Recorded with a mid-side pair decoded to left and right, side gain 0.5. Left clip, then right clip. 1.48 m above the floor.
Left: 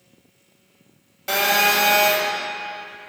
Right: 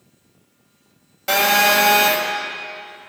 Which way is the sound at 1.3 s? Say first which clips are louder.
Right 3 dB; 20° right.